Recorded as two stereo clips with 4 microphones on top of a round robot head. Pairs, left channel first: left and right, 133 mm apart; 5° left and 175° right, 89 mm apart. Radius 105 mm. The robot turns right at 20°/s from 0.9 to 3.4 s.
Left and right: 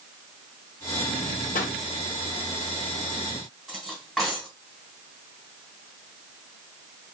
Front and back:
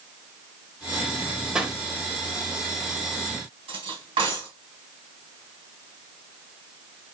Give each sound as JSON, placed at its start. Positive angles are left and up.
{"t": 1.6, "sound": "a pop", "azimuth_deg": 105, "distance_m": 2.0}
{"t": 3.7, "sound": "cutlery clinking", "azimuth_deg": 180, "distance_m": 3.0}